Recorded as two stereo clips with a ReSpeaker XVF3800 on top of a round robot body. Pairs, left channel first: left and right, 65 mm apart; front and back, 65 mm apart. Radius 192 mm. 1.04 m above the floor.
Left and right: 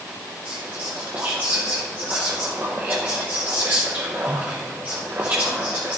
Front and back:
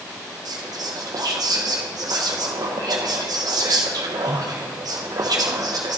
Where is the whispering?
155° right, 0.6 m.